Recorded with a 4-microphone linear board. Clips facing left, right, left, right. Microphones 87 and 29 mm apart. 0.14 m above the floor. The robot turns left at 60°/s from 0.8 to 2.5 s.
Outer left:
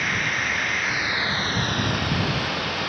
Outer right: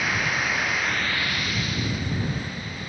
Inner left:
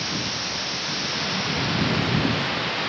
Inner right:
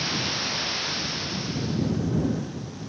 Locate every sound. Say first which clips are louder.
0.0 s running water: even, even; straight behind; by 2.9 s 80° left